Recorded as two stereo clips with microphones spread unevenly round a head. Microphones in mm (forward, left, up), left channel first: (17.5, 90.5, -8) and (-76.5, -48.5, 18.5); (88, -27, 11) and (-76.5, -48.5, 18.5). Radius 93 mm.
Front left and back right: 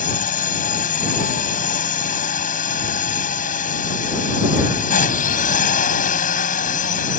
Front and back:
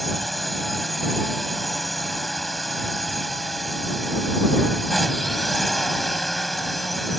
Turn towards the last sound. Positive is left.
turn(degrees=95)